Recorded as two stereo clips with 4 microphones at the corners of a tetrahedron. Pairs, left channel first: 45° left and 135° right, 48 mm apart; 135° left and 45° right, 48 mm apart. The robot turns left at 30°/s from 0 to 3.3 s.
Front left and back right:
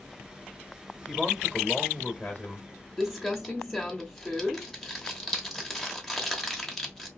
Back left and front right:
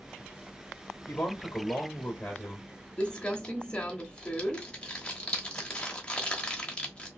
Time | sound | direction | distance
1.1 | a man speaking | 130° left | 1.0 m
3.0 | crumpling | 140° left | 0.9 m